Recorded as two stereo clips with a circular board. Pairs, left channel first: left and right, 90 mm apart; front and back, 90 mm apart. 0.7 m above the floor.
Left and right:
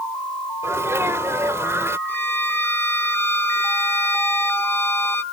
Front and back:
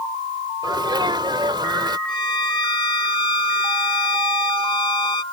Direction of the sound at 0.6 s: 150° right.